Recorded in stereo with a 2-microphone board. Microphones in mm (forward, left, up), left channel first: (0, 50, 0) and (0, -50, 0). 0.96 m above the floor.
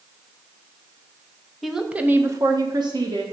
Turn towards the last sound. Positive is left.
turn(degrees=-50)  # may be behind; listen again after turning